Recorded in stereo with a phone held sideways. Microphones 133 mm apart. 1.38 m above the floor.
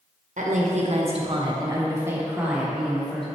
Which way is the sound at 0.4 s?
70° right (ahead or behind).